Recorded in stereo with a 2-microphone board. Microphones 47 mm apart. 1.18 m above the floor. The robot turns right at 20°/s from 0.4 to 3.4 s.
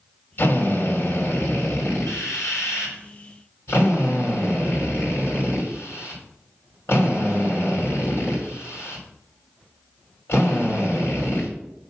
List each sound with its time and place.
0.4 s a drill: 60° left, 3.5 m; by 11.5 s 120° left, 3.5 m